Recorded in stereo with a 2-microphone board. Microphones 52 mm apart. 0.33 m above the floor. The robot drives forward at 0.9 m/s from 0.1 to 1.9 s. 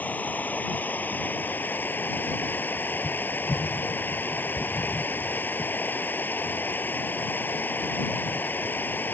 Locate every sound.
0.0 s running water: 35° left (ahead or behind); by 9.1 s 40° left (ahead or behind)